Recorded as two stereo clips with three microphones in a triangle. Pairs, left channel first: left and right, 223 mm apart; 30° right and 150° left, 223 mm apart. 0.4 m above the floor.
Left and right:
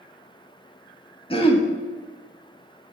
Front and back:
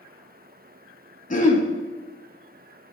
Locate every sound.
1.3 s throat clearing: 20° left, 0.9 m